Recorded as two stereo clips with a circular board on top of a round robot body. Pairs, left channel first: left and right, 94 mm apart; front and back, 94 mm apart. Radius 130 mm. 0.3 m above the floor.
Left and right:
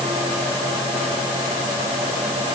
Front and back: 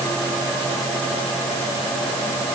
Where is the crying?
No crying in this recording.